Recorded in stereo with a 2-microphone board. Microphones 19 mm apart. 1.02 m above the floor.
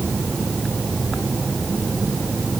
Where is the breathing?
I don't hear breathing.